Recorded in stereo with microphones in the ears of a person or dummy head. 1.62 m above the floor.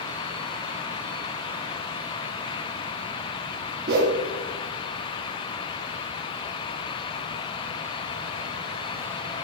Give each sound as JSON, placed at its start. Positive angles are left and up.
{"t": 3.9, "sound": "a whoosh", "side_deg": -55, "distance_m": 0.8}